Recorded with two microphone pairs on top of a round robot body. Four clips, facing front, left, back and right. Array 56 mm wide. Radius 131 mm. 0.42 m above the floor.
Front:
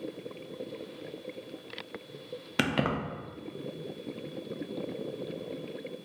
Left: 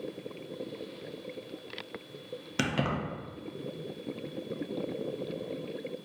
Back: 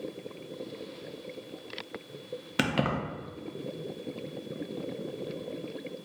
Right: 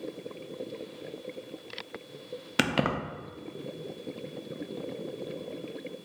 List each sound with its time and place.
2.6 s keys jangling: 85° right, 0.6 m